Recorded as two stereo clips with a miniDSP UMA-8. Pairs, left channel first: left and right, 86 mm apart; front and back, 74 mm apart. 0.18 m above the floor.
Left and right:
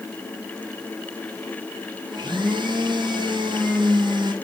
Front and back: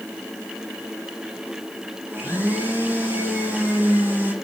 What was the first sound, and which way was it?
A blender, 115° right.